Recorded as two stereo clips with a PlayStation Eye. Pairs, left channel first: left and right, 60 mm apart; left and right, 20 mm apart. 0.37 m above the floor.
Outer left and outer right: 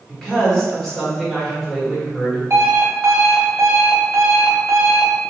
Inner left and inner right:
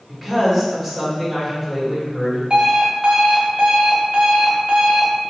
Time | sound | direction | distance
0.1 | a woman speaking | 5° left (ahead or behind) | 1.3 m
2.5 | an alarm clock | 50° right (ahead or behind) | 0.9 m